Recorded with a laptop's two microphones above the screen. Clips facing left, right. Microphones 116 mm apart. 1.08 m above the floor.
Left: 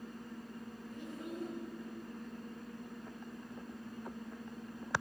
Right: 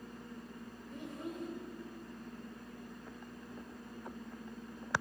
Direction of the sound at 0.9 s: 35° right (ahead or behind).